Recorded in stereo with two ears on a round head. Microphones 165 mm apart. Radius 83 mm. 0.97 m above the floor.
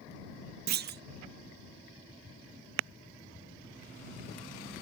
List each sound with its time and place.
0.7 s a clunk: 55° right (ahead or behind)